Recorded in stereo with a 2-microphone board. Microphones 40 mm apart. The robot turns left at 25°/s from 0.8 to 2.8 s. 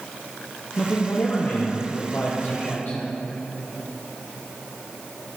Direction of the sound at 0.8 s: 115° left.